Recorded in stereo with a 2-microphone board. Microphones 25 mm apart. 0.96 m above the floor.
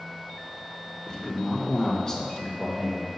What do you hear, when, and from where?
1.1 s a man speaking: 20° left (ahead or behind), 1.0 m; by 3.1 s 10° left (ahead or behind), 1.6 m